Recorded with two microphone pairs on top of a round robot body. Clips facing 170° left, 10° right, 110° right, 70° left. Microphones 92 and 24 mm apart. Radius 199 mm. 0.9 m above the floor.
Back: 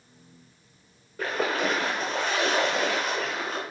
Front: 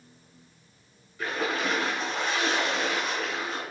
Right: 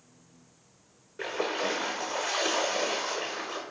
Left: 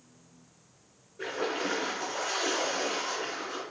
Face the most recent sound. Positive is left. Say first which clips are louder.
# back 2 dB, right 1 dB
turn(degrees=-145)